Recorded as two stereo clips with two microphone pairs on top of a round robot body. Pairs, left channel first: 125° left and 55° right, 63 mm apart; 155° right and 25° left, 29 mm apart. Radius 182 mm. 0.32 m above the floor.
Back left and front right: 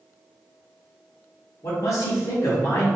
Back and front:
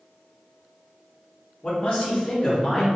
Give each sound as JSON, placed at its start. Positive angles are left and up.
{"t": 1.6, "sound": "a man speaking", "azimuth_deg": 150, "distance_m": 1.9}